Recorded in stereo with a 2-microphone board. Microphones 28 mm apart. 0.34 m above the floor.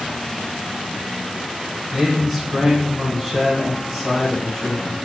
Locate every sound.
1.9 s a man speaking: 5° right (ahead or behind), 1.3 m